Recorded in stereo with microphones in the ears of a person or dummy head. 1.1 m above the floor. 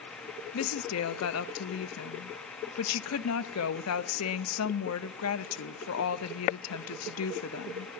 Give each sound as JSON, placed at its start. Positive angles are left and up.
{"t": 0.5, "sound": "a woman speaking", "side_deg": 80, "distance_m": 0.9}